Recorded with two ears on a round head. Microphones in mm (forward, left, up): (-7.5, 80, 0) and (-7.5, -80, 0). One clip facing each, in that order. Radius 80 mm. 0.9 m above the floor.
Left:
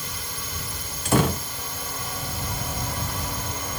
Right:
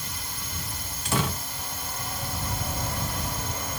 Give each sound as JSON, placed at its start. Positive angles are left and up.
{"t": 0.0, "sound": "a drone", "side_deg": 70}
{"t": 1.1, "sound": "a door slam", "side_deg": 40}